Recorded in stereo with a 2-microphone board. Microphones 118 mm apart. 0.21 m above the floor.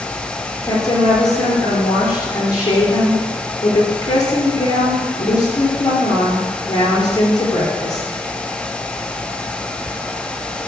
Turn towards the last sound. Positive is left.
turn(degrees=35)  # may be behind; listen again after turning